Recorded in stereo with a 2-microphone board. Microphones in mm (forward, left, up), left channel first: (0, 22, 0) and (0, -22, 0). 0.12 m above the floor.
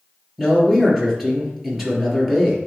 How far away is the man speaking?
About 2.5 m.